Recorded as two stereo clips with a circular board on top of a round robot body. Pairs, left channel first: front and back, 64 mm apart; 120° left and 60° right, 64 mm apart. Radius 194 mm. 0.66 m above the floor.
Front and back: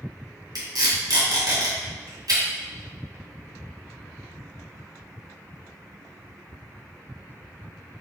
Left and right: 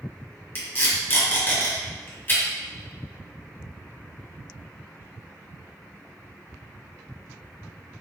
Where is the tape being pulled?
Straight behind, 1.8 m.